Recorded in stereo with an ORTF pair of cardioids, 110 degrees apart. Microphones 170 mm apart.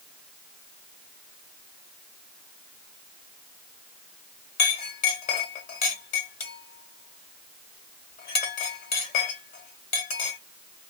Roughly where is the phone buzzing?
I don't hear a phone buzzing.